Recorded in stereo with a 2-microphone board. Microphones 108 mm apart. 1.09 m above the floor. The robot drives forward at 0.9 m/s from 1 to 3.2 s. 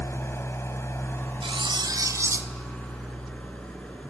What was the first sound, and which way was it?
An engine running, 25° left (ahead or behind).